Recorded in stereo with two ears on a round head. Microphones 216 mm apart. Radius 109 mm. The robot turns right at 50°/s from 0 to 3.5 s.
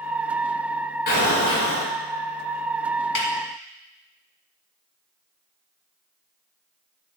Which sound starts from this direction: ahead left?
An explosion, at 1.1 s.